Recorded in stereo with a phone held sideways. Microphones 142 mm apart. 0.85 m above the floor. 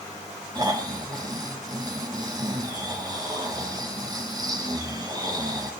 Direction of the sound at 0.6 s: 30° right (ahead or behind).